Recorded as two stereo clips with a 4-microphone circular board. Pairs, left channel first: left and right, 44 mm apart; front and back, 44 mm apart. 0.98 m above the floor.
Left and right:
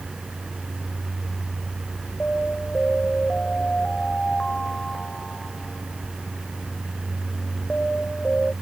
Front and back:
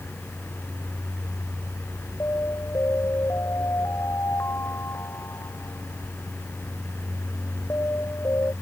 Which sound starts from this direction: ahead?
An alarm, at 2.2 s.